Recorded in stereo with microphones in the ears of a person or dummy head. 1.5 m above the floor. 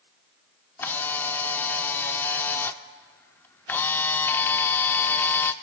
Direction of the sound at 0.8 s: 5° left (ahead or behind).